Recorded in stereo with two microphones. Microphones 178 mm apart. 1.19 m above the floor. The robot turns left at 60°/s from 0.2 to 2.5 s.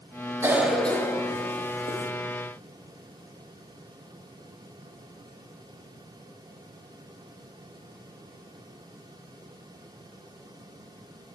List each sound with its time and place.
0.4 s a cough: 15° right (ahead or behind), 0.7 m; by 2.1 s 45° left (ahead or behind), 0.7 m